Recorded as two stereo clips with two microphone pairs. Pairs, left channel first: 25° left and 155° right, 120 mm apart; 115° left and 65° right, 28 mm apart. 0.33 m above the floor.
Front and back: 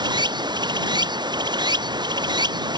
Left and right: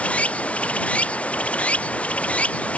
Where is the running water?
155° left.